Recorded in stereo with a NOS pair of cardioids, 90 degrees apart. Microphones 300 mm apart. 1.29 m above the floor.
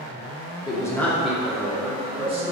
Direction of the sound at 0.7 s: 15° left.